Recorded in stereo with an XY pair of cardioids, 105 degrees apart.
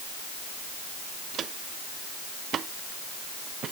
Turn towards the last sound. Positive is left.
turn(degrees=-60)